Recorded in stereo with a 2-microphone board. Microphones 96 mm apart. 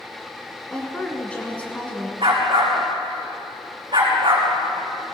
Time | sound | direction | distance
0.7 | a woman speaking | 10° left (ahead or behind) | 1.9 m
2.2 | a dog barking | 65° right (ahead or behind) | 4.5 m